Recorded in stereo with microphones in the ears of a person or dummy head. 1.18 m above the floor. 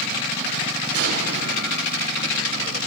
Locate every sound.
0.9 s an explosion: 65° right (ahead or behind), 7 m